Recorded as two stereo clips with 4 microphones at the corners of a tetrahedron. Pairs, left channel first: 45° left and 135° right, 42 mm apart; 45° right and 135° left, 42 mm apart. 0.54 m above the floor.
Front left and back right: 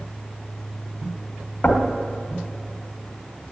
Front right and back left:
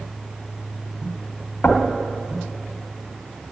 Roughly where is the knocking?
Ahead.